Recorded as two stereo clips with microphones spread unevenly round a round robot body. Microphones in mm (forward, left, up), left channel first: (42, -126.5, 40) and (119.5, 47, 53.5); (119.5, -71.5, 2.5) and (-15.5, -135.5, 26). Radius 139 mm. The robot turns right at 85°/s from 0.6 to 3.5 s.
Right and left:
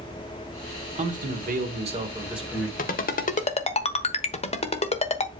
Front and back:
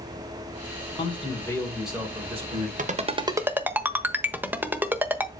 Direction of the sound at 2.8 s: 130° right.